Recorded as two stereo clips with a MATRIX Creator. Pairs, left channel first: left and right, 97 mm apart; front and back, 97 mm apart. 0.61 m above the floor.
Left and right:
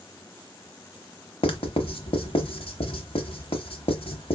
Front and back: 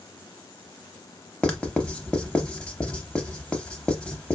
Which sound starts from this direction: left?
Writing, at 1.4 s.